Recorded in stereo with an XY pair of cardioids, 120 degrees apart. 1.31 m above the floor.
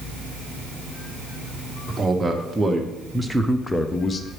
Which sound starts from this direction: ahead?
A man speaking, at 1.9 s.